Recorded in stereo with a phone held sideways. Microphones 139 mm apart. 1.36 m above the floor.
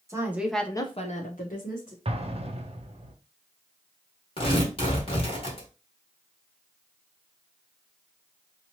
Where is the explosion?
45° right (ahead or behind), 0.6 m.